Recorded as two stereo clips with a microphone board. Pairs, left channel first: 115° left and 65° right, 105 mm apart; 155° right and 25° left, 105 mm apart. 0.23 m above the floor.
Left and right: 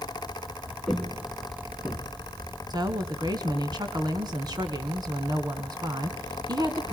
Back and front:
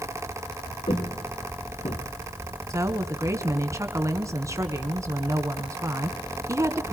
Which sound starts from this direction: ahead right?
A woman speaking, at 2.7 s.